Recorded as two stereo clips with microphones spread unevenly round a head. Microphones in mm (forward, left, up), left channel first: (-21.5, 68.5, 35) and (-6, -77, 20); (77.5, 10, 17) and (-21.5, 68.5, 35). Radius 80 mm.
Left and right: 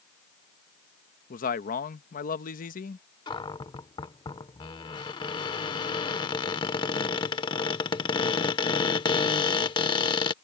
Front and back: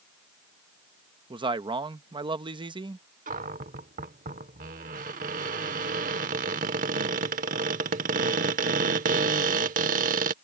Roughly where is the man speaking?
Left.